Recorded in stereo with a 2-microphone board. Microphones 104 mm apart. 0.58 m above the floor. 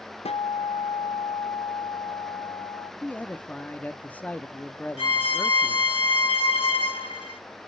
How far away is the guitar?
About 0.6 m.